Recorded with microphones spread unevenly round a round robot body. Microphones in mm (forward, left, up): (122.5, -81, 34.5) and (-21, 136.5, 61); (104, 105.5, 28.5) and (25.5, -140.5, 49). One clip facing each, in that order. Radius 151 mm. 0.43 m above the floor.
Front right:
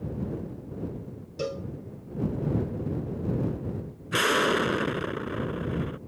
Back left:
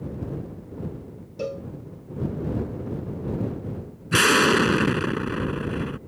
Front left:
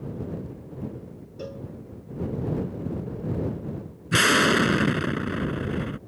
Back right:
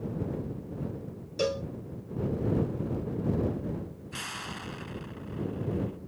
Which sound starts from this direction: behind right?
A cowbell, at 1.4 s.